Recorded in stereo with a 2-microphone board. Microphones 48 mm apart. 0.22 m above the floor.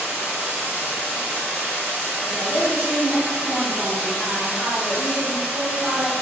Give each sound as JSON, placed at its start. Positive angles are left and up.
{"t": 0.0, "sound": "running water", "side_deg": -40, "distance_m": 1.2}
{"t": 2.2, "sound": "a woman speaking", "side_deg": 15, "distance_m": 1.1}